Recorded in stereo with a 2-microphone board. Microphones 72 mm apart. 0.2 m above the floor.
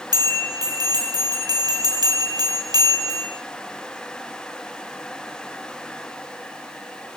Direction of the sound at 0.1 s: 75° right (ahead or behind).